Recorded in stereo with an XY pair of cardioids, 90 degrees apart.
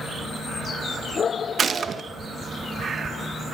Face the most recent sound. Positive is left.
turn(degrees=-50)